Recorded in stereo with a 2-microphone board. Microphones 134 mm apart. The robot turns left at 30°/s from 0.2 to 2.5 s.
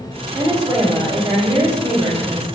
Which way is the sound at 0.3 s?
15° right (ahead or behind).